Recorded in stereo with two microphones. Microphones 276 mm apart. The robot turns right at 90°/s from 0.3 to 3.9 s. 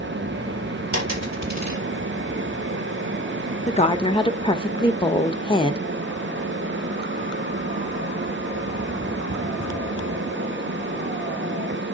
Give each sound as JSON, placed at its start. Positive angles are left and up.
{"t": 0.9, "sound": "a dropped coin", "side_deg": -85, "distance_m": 4.0}
{"t": 3.7, "sound": "a woman speaking", "side_deg": 25, "distance_m": 0.8}